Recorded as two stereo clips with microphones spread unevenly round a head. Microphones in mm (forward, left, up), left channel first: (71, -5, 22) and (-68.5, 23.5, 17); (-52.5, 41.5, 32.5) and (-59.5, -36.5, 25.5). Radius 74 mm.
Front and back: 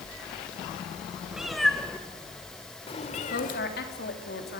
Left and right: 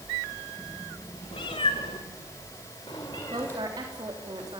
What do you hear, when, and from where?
1.3 s a cat meowing: 85° left, 2 m; by 3.6 s 10° left, 1.8 m
3.3 s a woman speaking: 35° right, 3.5 m